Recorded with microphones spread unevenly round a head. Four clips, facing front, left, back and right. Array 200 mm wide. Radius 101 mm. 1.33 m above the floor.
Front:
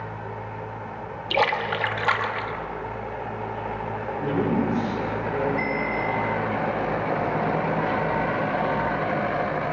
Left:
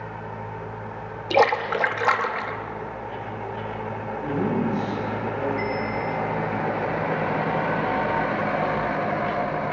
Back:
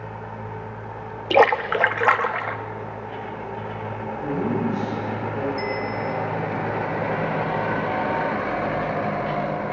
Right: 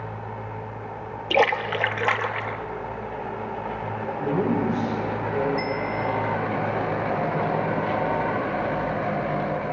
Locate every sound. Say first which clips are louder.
1.3 s a splash: left 2 dB, back 7 dB; straight behind, 0.9 m
4.2 s a man speaking: right 1 dB, front 1 dB; 55° right, 6 m
5.6 s a bell: even, even; 45° right, 1.0 m